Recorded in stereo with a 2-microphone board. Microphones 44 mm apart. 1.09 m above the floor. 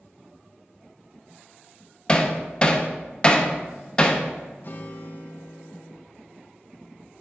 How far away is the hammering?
About 0.6 m.